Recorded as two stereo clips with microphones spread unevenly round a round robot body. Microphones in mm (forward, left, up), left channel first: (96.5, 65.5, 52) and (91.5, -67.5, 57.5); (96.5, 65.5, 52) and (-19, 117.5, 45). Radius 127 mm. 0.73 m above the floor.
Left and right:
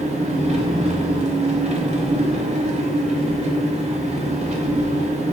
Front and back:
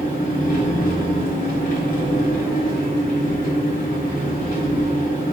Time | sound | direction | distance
0.0 | an engine running | 50° right | 0.9 m